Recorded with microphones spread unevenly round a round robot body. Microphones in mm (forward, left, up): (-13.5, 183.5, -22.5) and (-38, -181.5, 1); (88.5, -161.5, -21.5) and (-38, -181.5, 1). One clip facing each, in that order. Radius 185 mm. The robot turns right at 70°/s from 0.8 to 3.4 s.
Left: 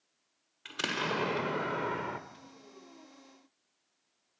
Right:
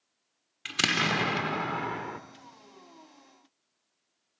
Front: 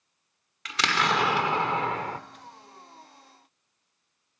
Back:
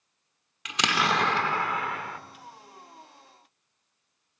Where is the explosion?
95° right, 1.3 m; by 2.2 s 5° left, 1.3 m.